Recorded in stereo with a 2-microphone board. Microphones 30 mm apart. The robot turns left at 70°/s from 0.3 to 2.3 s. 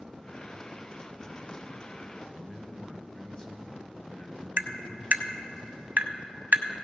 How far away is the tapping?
About 0.7 m.